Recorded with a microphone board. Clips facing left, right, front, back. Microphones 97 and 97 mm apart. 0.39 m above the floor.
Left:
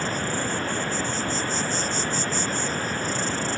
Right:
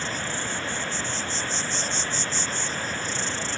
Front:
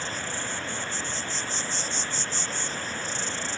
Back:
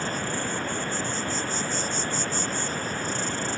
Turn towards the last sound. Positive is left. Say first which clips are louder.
# left 4 dB, back 4 dB
turn(degrees=135)